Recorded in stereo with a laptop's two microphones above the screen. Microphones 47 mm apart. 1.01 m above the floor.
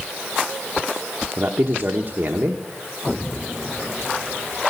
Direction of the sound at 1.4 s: 45° right (ahead or behind).